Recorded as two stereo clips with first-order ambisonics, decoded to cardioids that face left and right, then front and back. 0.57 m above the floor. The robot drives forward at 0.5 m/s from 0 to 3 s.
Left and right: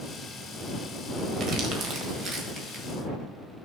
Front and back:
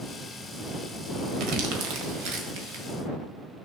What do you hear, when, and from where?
1.4 s crumpling: 140° right, 1.6 m; by 2.8 s 155° right, 2 m